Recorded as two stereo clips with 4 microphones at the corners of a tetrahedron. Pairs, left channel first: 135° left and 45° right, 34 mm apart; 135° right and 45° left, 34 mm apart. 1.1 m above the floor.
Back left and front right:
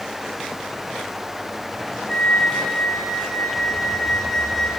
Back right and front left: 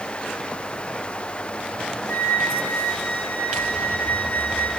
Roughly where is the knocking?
I don't hear knocking.